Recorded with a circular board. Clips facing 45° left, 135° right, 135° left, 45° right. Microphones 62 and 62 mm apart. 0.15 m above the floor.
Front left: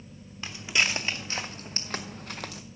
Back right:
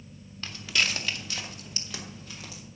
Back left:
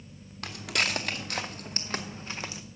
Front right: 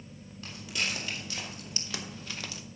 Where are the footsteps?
120° left, 1.6 m; by 2.6 s 65° left, 1.2 m.